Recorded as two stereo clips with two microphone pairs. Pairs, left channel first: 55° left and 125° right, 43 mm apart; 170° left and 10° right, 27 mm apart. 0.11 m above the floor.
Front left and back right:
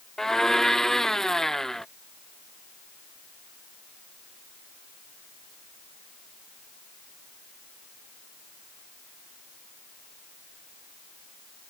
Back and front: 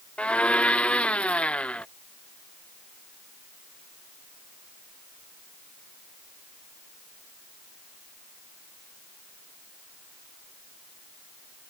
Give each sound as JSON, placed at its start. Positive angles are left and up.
{"t": 0.2, "sound": "a blender", "azimuth_deg": 135}